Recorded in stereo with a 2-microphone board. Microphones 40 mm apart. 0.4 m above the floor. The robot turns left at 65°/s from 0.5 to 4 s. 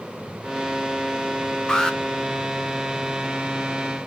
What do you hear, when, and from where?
1.7 s an alarm: 20° left (ahead or behind), 0.7 m; by 2.0 s 10° left (ahead or behind), 0.7 m